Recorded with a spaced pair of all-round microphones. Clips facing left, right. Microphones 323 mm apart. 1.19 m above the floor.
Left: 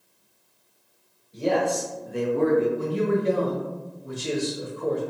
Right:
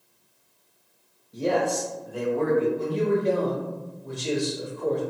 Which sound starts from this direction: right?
A man speaking, at 1.3 s.